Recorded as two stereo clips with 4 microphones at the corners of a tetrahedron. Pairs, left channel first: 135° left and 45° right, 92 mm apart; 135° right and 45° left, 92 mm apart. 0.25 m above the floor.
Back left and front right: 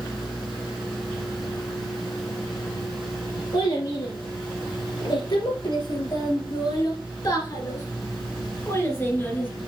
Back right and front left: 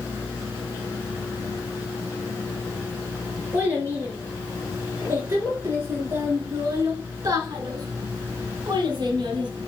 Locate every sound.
3.5 s a child speaking: 115° left, 4.5 m; by 9.5 s 70° left, 2.5 m